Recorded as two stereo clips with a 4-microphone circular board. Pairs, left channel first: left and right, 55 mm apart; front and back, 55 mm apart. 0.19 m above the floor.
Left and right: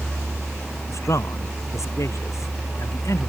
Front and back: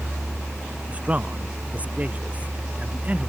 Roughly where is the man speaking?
Behind left.